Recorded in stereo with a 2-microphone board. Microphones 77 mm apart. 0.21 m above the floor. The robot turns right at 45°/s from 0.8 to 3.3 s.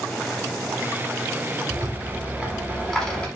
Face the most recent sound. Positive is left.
turn(degrees=25)